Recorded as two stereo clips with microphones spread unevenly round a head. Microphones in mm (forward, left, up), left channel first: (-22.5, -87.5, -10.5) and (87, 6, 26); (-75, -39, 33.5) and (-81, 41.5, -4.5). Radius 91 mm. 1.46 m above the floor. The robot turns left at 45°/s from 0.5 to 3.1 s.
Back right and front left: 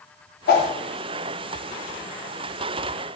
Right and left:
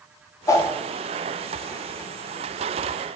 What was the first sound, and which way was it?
A whoosh, 120° right.